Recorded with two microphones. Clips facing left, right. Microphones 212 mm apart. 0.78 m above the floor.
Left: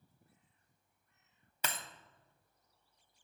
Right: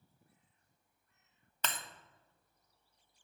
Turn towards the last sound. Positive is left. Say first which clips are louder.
# even
turn(degrees=10)  # may be behind; listen again after turning